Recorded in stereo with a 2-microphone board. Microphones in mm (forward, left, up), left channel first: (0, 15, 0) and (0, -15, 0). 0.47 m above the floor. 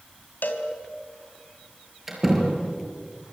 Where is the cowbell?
75° left (ahead or behind), 3 m.